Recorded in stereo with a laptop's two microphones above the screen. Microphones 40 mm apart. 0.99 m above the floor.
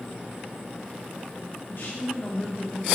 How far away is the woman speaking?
About 1.7 m.